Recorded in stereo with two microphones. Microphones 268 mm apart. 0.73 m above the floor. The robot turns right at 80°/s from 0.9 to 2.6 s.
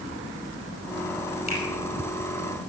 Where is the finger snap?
30° right (ahead or behind), 4.5 m; by 1.6 s 20° right (ahead or behind), 4.5 m.